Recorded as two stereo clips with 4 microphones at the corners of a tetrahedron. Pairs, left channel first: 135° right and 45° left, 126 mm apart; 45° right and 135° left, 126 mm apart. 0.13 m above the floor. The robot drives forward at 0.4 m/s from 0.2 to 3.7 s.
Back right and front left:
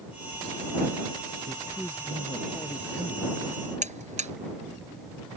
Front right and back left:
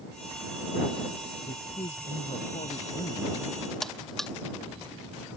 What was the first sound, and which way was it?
A man speaking, 50° right.